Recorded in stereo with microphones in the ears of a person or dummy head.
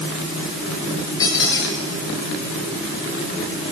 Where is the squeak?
25° left (ahead or behind), 6 m.